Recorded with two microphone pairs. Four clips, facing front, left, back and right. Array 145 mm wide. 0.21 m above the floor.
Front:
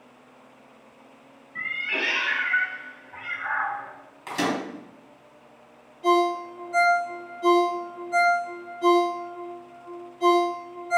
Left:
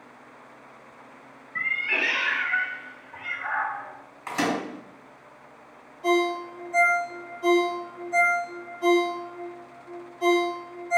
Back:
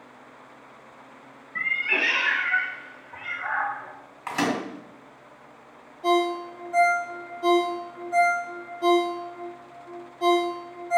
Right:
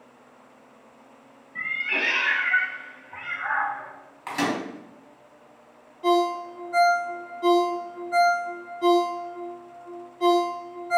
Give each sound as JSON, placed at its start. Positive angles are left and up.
{"t": 1.6, "sound": "a cat meowing", "azimuth_deg": 145, "distance_m": 0.7}
{"t": 4.3, "sound": "a microwave", "azimuth_deg": -165, "distance_m": 1.4}
{"t": 6.0, "sound": "a ringtone", "azimuth_deg": -85, "distance_m": 1.7}